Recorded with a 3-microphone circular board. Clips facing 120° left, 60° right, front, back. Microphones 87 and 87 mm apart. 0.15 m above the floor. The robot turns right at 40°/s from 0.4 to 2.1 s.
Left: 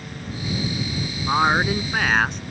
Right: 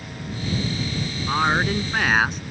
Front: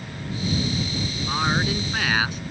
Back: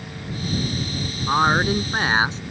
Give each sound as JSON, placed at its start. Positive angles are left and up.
{"t": 1.3, "sound": "a woman speaking", "azimuth_deg": 180}